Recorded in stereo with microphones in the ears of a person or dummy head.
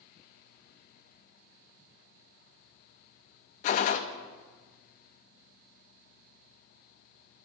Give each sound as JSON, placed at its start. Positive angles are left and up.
{"t": 3.6, "sound": "a gunshot", "side_deg": 50, "distance_m": 0.5}